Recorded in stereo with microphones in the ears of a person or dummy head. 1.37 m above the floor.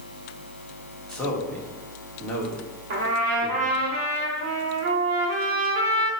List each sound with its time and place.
1.1 s a man speaking: 5° left (ahead or behind), 2.5 m
2.9 s a trumpet: 45° right (ahead or behind), 1.8 m